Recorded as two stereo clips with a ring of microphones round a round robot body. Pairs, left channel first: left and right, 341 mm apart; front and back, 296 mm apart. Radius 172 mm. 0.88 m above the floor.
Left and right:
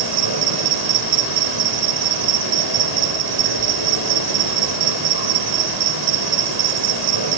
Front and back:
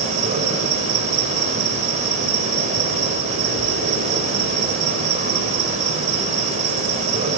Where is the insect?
110° right, 3.5 m.